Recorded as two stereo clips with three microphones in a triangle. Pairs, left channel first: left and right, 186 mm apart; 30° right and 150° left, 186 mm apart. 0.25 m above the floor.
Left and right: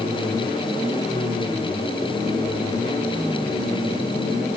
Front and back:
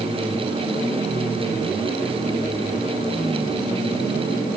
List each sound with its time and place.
Only background noise.